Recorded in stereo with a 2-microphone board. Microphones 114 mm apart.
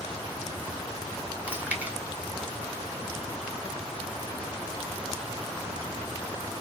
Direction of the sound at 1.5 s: 15° right (ahead or behind).